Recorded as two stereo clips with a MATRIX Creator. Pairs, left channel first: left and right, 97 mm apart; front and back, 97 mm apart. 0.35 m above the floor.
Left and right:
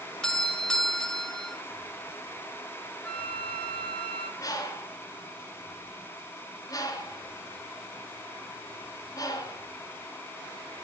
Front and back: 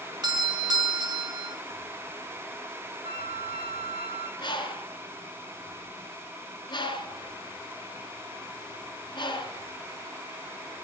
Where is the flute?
165° left, 4 m.